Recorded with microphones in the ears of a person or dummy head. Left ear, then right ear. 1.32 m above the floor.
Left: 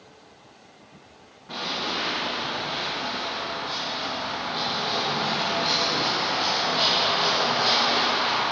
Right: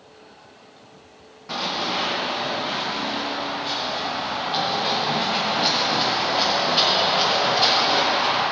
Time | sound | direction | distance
1.5 | running footsteps | 45° right (ahead or behind) | 3.5 m